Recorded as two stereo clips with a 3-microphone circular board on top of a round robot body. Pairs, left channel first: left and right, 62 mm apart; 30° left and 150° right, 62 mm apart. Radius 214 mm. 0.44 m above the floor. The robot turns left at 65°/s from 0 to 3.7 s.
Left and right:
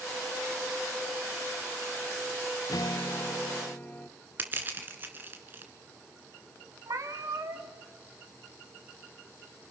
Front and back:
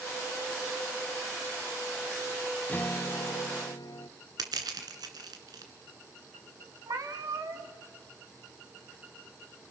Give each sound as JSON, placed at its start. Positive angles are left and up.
{"t": 2.7, "sound": "a guitar", "azimuth_deg": 95, "distance_m": 0.8}
{"t": 4.4, "sound": "crushing", "azimuth_deg": -150, "distance_m": 2.0}
{"t": 6.9, "sound": "a cat meowing", "azimuth_deg": -120, "distance_m": 1.8}